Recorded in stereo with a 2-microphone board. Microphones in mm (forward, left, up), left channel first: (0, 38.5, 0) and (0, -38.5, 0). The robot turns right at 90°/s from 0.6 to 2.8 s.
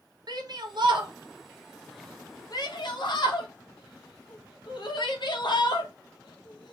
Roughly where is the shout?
Right.